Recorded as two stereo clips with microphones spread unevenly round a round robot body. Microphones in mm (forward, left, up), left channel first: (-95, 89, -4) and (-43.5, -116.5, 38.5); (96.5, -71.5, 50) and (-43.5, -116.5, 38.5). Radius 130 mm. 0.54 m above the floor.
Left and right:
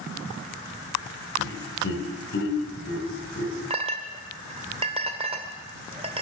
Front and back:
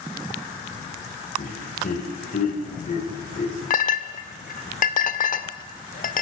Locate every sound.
1.4 s laughter: 65° left, 3 m
3.7 s a clink: 5° right, 1.3 m